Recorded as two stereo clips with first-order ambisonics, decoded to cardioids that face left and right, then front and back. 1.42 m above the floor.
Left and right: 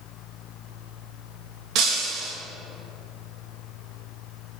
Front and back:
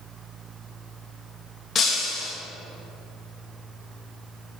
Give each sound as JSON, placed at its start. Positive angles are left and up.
{"t": 1.8, "sound": "breaking glass", "azimuth_deg": -60, "distance_m": 1.1}